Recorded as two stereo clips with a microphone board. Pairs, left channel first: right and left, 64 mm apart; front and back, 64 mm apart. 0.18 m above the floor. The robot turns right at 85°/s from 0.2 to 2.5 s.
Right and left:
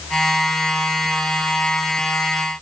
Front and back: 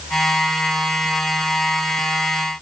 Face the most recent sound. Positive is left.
No sound to turn to.